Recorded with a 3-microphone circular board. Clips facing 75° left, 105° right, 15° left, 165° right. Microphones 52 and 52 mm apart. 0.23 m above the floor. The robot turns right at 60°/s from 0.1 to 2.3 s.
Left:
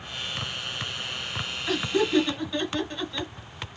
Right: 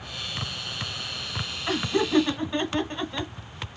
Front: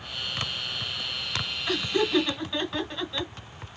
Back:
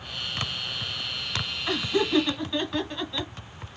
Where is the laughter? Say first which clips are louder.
Even, back 1 dB; 115° right, 1.5 m; by 3.3 s 75° right, 1.5 m.